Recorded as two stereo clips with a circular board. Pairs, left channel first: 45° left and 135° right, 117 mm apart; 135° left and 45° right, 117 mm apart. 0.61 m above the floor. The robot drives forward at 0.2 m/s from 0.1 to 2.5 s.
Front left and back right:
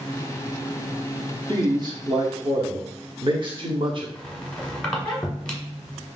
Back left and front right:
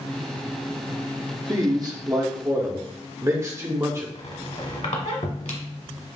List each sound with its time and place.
1.5 s a man speaking: 90° right, 1.0 m; by 4.0 s 105° right, 1.0 m
4.2 s a squeak: 130° left, 1.3 m